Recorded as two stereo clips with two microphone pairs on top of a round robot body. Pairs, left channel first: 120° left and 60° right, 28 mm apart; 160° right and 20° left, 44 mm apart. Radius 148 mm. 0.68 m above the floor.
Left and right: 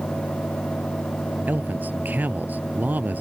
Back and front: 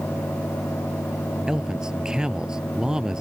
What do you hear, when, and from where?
1.5 s a man speaking: 55° right